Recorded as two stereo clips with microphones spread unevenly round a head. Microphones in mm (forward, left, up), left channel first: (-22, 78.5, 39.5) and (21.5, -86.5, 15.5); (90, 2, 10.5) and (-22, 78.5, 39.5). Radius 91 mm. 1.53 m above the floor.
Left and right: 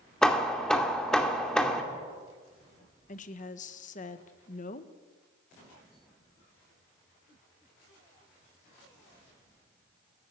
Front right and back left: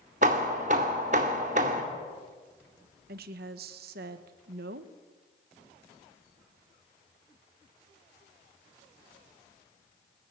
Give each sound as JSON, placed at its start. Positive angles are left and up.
{"t": 0.2, "sound": "hammering", "azimuth_deg": -175, "distance_m": 2.0}
{"t": 3.1, "sound": "a woman speaking", "azimuth_deg": 150, "distance_m": 1.5}